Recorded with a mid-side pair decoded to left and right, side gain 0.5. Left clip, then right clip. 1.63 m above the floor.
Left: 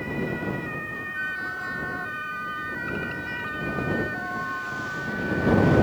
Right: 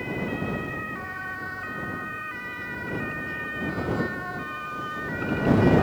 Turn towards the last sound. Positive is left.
turn(degrees=45)